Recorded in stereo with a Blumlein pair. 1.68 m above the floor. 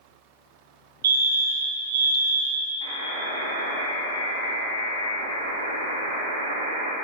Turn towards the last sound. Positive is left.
turn(degrees=-65)